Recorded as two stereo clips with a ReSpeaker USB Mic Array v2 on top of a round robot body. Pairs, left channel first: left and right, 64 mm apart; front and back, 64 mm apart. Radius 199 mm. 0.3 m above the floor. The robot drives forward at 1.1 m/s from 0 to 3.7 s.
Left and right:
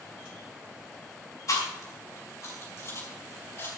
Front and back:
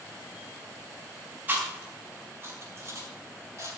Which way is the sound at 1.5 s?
115° left.